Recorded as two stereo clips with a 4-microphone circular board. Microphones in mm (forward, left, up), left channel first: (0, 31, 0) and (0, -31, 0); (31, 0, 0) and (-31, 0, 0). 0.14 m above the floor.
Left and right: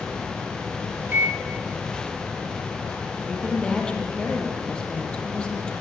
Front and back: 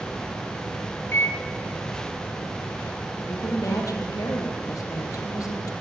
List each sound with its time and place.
1.1 s a microwave: 40° right, 2.5 m
3.3 s a woman speaking: 15° left, 4 m